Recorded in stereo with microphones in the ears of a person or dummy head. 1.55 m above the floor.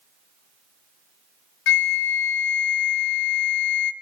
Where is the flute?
65° left (ahead or behind), 1.1 m.